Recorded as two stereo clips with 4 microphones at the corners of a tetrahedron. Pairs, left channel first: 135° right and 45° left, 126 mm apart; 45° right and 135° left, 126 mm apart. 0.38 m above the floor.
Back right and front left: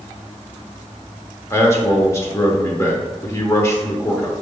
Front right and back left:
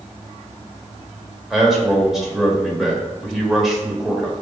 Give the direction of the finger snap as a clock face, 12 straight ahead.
No finger snap in this recording.